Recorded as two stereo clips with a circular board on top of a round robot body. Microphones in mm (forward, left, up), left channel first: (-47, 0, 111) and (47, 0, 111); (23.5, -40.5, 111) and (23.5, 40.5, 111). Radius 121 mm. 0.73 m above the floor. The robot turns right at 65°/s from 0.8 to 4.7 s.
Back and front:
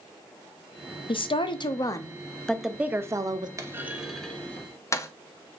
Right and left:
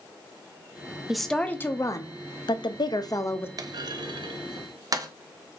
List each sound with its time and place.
1.1 s a woman speaking: 175° left, 0.7 m; by 3.5 s 30° right, 0.7 m
3.6 s a clunk: 55° left, 0.7 m; by 5.1 s 125° left, 0.7 m